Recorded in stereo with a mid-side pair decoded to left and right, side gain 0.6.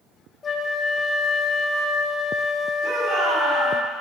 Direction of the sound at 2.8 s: 50° right.